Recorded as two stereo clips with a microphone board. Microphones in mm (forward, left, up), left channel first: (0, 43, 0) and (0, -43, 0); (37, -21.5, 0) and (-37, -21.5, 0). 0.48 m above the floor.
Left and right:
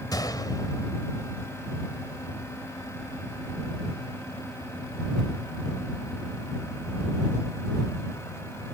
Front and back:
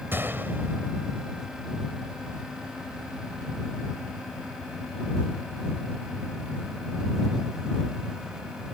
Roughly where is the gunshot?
Behind left.